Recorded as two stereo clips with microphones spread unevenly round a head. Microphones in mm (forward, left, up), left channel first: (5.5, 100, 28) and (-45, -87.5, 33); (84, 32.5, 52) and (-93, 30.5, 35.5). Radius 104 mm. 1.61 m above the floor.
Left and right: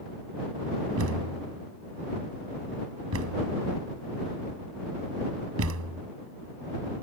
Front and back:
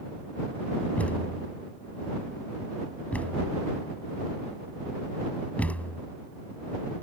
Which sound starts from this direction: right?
A thud, at 1.0 s.